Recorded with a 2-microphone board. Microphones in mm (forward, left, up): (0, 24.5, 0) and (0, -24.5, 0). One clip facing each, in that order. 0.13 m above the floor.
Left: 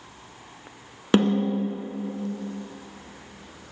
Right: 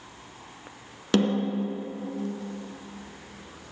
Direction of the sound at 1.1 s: 25° left (ahead or behind).